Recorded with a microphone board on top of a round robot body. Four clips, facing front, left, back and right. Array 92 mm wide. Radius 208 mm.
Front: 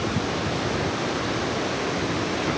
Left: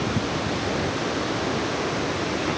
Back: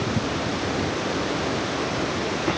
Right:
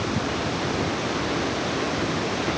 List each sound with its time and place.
Only background noise.